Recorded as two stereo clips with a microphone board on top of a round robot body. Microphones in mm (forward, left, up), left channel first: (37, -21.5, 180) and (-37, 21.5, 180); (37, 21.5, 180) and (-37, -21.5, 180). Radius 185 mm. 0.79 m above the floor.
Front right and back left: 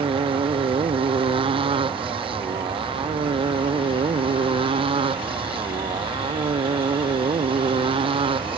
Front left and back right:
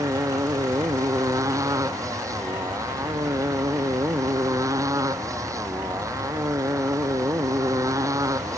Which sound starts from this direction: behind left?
A motorcycle, at 0.0 s.